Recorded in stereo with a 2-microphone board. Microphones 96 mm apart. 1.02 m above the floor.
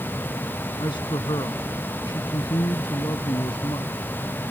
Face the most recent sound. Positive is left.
turn(degrees=50)  # may be behind; listen again after turning